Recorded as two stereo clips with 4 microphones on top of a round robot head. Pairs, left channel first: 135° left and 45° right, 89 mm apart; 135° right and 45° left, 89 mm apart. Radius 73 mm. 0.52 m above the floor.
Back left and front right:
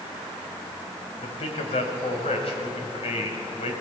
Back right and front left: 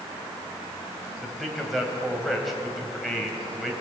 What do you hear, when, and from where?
1.2 s a man speaking: 135° left, 3 m